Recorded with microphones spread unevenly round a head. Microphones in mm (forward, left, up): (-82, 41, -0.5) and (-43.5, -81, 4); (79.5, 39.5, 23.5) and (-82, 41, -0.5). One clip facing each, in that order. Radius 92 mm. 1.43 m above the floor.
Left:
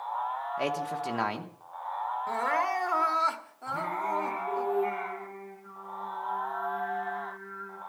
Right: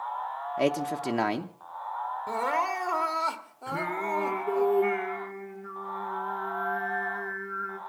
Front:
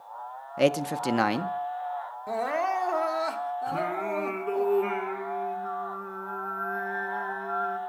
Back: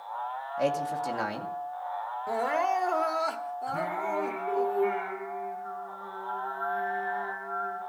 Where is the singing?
40° right, 3.5 m.